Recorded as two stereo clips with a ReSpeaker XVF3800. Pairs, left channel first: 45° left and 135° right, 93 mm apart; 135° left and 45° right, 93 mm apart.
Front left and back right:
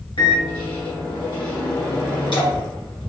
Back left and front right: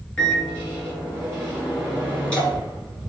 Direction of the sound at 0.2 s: 55° left.